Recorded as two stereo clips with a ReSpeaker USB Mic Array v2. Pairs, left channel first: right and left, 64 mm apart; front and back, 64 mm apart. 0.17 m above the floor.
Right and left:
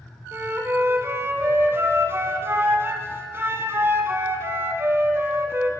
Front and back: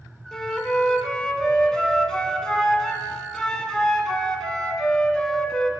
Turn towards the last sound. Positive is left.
turn(degrees=75)